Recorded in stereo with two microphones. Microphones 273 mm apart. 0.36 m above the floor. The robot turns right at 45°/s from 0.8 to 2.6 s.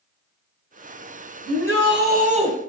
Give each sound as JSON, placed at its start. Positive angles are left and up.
{"t": 1.5, "sound": "a shout", "azimuth_deg": -70, "distance_m": 2.5}